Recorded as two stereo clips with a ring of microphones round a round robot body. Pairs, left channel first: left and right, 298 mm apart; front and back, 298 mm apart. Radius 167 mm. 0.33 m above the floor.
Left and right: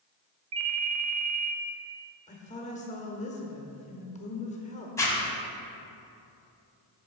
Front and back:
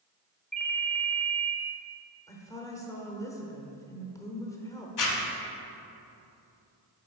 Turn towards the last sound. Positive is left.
turn(degrees=10)